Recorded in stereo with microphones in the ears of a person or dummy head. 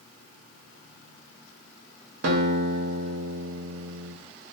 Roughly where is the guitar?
Right.